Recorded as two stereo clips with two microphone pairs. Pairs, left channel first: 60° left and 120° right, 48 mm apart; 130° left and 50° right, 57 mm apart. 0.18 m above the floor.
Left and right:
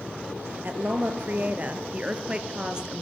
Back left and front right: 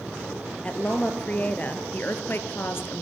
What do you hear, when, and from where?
0.6 s a woman speaking: 170° right, 3.5 m; by 3.0 s 165° left, 3 m